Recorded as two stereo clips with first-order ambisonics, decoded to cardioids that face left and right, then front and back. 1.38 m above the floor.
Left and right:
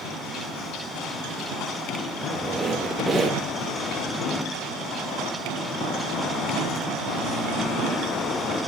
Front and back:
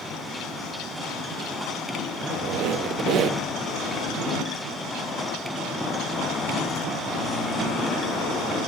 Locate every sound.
2.2 s a squeak: 170° right, 0.6 m